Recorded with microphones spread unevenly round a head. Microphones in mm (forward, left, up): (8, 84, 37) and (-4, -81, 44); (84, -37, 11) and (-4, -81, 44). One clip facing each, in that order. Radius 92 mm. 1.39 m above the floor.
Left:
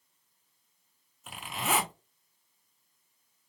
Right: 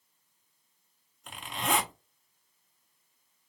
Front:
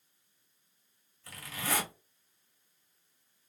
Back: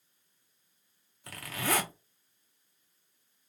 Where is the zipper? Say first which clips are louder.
Right 1 dB, back 4 dB; 170° left, 0.6 m.